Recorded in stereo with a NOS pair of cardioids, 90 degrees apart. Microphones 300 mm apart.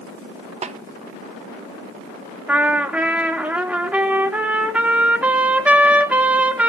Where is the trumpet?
5° right, 2 m.